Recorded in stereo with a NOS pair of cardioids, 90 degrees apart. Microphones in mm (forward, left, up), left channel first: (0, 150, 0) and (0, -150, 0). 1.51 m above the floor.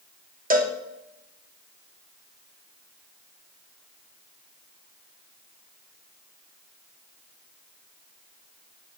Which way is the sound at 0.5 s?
30° right.